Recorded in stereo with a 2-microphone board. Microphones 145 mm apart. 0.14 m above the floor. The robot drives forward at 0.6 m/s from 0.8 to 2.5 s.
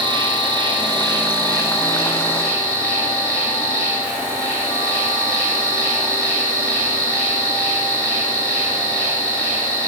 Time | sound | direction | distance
0.0 | an insect | 35° right (ahead or behind) | 1.5 m